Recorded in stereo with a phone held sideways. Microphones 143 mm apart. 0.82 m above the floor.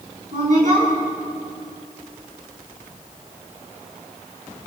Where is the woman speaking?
60° right (ahead or behind), 8.5 m.